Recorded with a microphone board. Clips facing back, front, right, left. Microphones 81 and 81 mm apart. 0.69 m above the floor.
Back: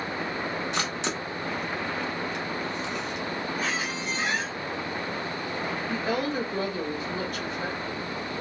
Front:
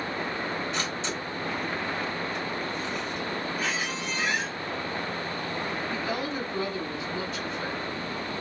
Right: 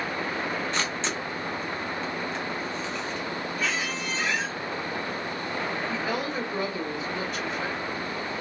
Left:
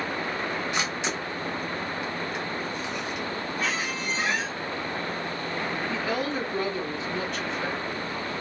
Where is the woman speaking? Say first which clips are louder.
Back 3 dB, left 1 dB; 175° right, 1.5 m.